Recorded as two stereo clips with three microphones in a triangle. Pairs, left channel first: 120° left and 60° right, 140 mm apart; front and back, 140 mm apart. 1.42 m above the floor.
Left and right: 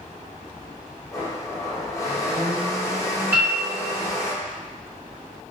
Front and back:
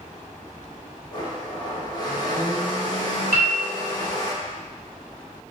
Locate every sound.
1.1 s a blender: 55° left, 0.7 m
3.3 s a piano: 130° right, 1.2 m